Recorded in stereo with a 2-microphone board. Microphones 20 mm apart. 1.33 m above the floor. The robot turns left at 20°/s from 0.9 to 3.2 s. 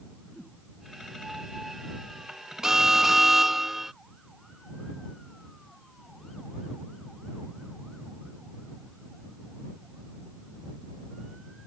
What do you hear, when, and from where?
0.3 s a whoosh: 55° left (ahead or behind)
2.6 s an alarm: 25° right (ahead or behind); by 3.9 s 15° right (ahead or behind)